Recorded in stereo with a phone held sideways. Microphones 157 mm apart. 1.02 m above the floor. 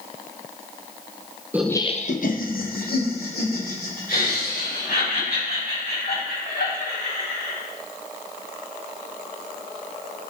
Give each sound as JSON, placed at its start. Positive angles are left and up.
{"t": 1.5, "sound": "laughter", "side_deg": -10, "distance_m": 0.6}